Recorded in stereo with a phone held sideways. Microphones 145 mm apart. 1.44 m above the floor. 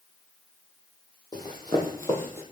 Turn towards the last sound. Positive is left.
turn(degrees=15)  # may be behind; listen again after turning